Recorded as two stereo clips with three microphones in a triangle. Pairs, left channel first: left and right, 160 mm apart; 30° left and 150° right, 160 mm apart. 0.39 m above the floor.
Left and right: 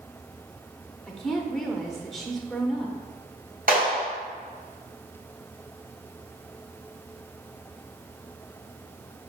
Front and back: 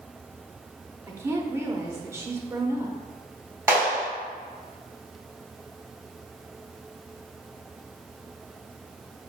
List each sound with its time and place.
1.1 s a woman speaking: 175° left, 1.0 m
3.7 s a clap: 80° right, 3.5 m